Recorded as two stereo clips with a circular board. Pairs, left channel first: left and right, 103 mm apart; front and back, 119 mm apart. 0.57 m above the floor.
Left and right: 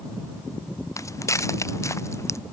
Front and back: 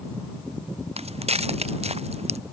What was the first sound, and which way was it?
Footsteps, 150° left.